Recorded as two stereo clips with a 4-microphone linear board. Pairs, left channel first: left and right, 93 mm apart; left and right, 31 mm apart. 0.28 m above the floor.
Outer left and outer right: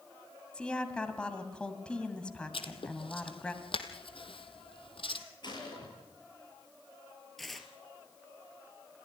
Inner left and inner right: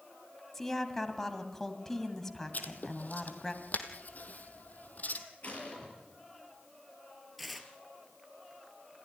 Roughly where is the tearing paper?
Centre.